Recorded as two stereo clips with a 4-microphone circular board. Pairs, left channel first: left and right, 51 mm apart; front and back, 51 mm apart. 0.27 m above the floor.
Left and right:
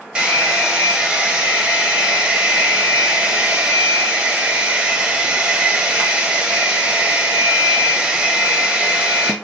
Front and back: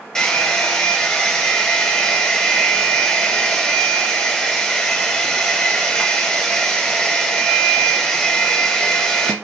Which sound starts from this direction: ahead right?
A hair dryer, at 0.1 s.